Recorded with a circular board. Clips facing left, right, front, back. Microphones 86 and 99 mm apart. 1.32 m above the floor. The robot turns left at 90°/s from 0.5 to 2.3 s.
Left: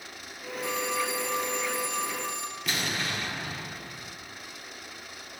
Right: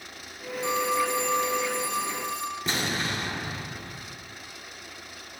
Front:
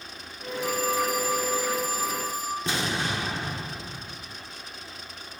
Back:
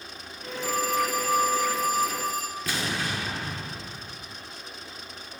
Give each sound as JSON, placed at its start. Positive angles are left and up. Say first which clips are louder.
{"t": 0.6, "sound": "a phone ringing", "louder": "right 5 dB, even", "azimuth_deg": -25, "distance_m": 2.0}
{"t": 2.7, "sound": "an explosion", "louder": "right 1 dB, front 1 dB", "azimuth_deg": -50, "distance_m": 1.1}